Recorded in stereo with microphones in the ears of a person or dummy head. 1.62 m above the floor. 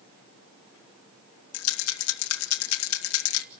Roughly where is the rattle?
Left.